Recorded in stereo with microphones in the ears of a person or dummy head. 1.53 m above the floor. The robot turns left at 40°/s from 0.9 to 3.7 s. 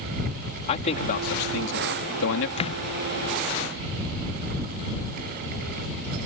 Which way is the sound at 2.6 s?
35° left (ahead or behind).